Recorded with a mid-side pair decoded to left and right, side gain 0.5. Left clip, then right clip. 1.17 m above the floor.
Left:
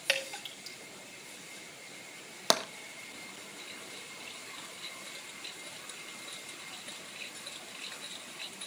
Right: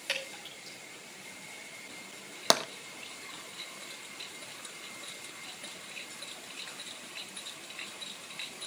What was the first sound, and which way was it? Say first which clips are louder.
Dripping: left 4 dB; 40° left.